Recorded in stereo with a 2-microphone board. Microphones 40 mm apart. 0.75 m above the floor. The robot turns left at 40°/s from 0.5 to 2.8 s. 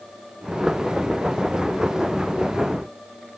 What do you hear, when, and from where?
Only background noise.